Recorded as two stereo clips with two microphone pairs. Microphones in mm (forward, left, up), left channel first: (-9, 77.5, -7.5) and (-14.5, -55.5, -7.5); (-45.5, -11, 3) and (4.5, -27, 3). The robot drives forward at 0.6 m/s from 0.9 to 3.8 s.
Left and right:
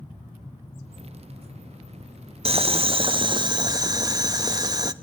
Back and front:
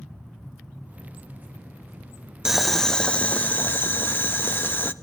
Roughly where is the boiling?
Right.